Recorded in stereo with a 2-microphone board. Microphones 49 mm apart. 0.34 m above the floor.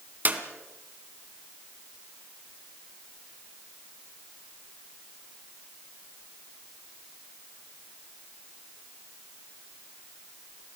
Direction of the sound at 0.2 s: 40° right (ahead or behind).